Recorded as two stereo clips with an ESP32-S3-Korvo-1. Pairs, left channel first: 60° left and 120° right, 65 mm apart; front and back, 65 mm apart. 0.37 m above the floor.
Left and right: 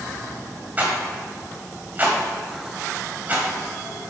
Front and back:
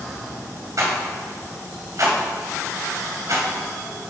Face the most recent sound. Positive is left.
turn(degrees=-175)